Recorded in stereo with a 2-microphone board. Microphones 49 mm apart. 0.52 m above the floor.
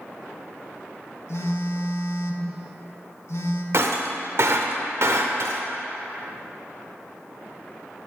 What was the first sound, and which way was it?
A phone buzzing, 60° left (ahead or behind).